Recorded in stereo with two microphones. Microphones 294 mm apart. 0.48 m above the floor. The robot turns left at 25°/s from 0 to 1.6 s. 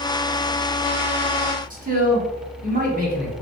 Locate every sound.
1.7 s a man speaking: 30° right (ahead or behind), 0.9 m